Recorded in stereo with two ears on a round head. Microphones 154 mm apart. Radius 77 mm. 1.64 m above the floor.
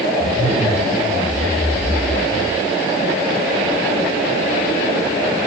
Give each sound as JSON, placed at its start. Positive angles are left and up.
{"t": 0.2, "sound": "a zipper", "side_deg": 15, "distance_m": 7.5}